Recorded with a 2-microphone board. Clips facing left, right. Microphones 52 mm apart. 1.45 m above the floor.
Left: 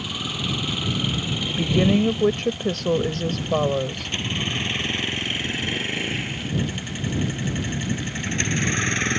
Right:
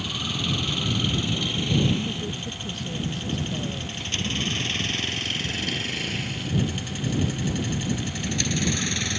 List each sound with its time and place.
0.0 s a vehicle: 5° left (ahead or behind); by 9.2 s 40° left (ahead or behind)
1.5 s a woman speaking: 85° left